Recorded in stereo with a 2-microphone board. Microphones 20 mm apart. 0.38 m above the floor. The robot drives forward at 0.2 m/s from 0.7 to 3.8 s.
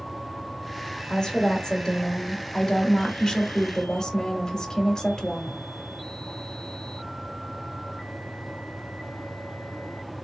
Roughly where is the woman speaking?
Left.